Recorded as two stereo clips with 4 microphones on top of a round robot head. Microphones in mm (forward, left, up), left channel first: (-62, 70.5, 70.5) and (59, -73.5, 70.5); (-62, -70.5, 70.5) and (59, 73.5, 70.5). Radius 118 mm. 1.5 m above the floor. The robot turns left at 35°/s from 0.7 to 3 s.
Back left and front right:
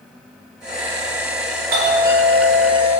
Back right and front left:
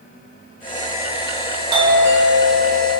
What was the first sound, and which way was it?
A doorbell, 10° right.